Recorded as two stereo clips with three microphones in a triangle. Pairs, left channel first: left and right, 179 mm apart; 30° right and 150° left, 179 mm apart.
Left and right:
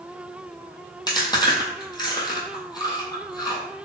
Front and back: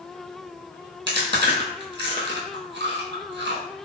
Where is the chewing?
155° left, 1.1 m.